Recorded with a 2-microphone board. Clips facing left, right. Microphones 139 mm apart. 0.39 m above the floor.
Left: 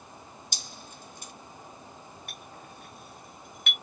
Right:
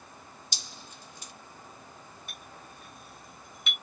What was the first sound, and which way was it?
Dripping, 55° left (ahead or behind).